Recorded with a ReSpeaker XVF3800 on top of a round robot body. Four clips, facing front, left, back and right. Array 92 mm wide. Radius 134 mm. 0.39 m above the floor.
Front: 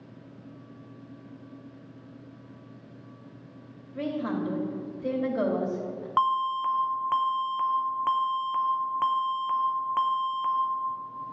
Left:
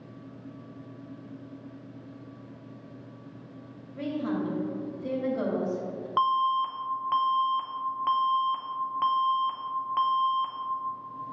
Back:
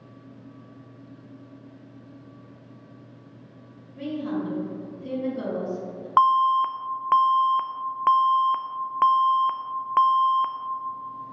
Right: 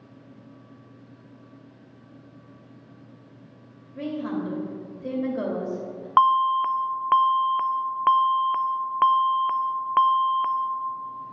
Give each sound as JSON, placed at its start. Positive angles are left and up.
{"t": 3.9, "sound": "a woman speaking", "azimuth_deg": -30, "distance_m": 2.5}
{"t": 6.2, "sound": "an alarm", "azimuth_deg": -125, "distance_m": 0.6}